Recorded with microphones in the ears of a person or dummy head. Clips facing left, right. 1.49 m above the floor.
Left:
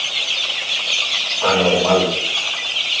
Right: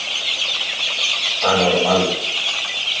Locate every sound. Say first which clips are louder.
1.4 s a man speaking: left 1 dB; 85° left, 4 m